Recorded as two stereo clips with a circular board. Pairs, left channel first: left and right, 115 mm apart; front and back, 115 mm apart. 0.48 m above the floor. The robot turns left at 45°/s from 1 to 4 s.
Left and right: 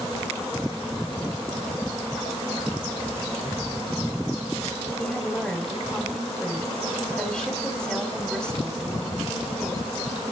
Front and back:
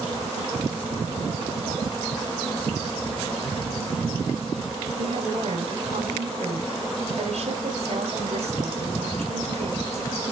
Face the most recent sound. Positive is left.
turn(degrees=175)